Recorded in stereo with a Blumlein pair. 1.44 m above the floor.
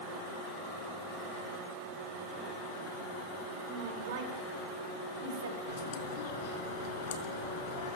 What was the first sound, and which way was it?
A woman speaking, 50° right.